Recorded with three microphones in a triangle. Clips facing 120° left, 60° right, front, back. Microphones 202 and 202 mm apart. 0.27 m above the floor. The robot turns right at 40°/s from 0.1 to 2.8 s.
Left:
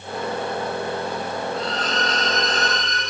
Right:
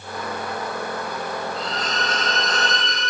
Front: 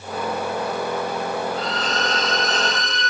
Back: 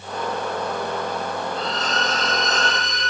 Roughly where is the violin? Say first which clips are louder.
Left 3 dB, front 1 dB; behind right.